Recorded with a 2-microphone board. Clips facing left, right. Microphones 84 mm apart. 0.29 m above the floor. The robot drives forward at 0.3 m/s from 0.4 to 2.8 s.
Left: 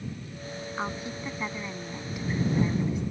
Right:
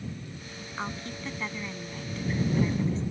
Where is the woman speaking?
10° left (ahead or behind); by 3.0 s 15° left (ahead or behind).